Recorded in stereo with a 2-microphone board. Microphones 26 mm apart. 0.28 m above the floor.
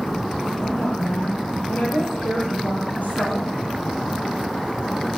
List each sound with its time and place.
0.6 s a woman speaking: 80° left, 8.5 m